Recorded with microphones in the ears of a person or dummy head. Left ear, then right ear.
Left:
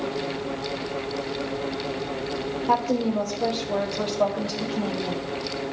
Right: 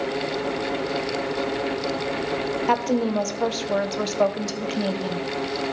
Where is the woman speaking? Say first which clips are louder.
Even; 65° right (ahead or behind), 1.3 m.